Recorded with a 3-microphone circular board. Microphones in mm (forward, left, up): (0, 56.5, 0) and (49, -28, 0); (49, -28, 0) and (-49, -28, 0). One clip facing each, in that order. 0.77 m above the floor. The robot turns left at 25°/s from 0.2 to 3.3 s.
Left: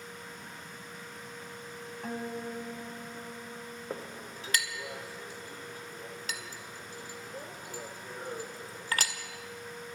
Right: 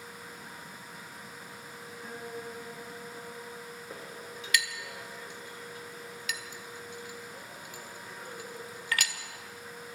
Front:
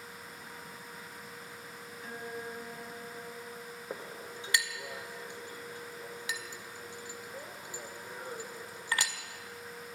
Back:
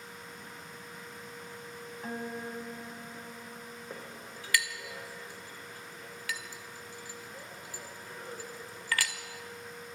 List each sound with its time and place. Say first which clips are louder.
2.0 s a guitar: left 4 dB, back 3 dB; 135° left, 2.5 m; by 4.4 s 105° left, 2.5 m
3.9 s a clink: left 5 dB, front 5 dB; 65° left, 1.7 m